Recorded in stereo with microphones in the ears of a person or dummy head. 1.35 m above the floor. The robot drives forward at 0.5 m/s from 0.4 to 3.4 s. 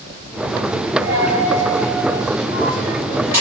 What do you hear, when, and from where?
1.0 s a dropped coin: 15° right (ahead or behind), 1.5 m; by 3.4 s 10° right (ahead or behind), 2.5 m